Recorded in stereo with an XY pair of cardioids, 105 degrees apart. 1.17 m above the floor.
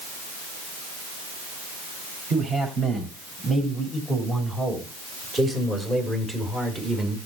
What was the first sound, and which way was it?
A man speaking, 45° right.